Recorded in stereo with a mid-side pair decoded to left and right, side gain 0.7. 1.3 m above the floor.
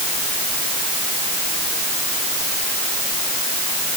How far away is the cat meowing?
I don't hear a cat meowing.